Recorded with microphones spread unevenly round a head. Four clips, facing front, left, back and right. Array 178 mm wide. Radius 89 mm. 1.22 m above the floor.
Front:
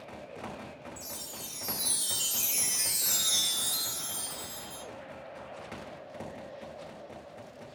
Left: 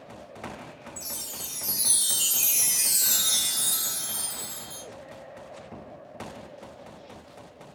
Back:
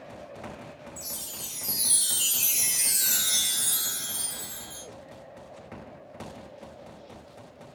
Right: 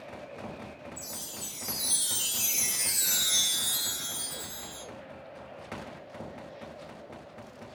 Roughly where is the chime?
Left.